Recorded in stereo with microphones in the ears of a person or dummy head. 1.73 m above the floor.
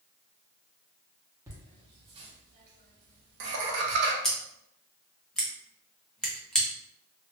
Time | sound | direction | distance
1.5 | laughter | 20° right (ahead or behind) | 1.3 m
4.2 | scissors | centre (ahead or behind) | 0.8 m